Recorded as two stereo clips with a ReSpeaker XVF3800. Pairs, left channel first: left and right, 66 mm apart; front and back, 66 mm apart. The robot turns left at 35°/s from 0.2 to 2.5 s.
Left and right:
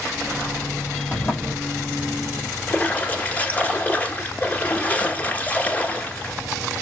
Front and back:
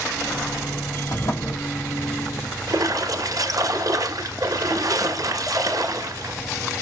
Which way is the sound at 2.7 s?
160° left.